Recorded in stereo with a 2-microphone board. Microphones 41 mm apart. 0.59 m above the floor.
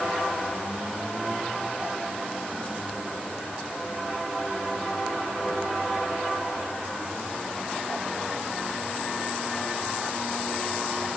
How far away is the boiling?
I don't hear boiling.